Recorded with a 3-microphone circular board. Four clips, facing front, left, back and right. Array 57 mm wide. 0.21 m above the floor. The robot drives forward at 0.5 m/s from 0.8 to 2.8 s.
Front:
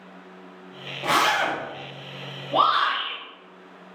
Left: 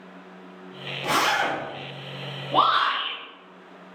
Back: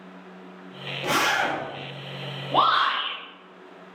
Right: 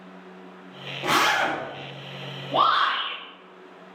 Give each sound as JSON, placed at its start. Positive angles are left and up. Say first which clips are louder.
{"t": 1.0, "sound": "a zipper", "louder": "right 1 dB, front 2 dB", "azimuth_deg": -50, "distance_m": 1.0}
{"t": 2.5, "sound": "a shout", "louder": "even, even", "azimuth_deg": 145, "distance_m": 1.8}